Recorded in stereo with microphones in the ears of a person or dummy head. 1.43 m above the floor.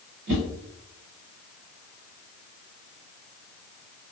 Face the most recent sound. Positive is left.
turn(degrees=-65)  # may be behind; listen again after turning